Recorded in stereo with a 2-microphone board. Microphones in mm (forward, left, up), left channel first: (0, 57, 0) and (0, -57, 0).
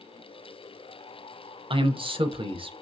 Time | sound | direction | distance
1.7 | a man speaking | 45° right (ahead or behind) | 0.5 m